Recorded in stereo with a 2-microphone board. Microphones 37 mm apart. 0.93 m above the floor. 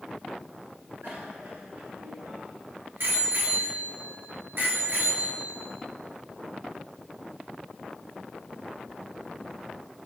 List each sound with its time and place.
1.0 s a bicycle bell: 70° right (ahead or behind), 8.5 m; by 5.7 s 60° right (ahead or behind), 10 m